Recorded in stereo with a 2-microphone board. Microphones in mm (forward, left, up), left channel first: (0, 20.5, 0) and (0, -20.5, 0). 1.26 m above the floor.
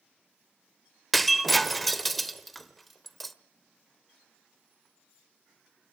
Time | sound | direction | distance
1.1 | breaking glass | centre (ahead or behind) | 1.1 m